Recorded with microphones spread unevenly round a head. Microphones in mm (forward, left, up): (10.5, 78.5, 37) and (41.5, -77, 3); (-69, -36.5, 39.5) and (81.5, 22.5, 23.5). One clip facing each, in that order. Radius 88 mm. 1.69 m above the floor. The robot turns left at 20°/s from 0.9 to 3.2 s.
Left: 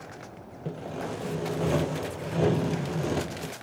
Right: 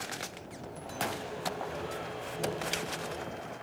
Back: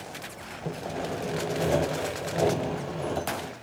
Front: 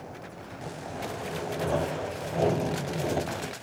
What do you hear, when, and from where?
0.7 s sawing: 145° left, 0.9 m; by 3.5 s 100° left, 0.9 m